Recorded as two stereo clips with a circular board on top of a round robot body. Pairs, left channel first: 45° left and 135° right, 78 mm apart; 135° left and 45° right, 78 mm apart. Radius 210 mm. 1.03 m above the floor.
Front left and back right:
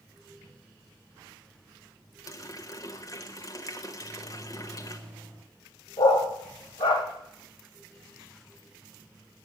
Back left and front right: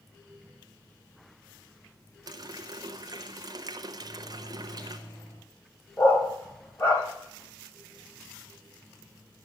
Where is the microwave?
160° left, 4.5 m.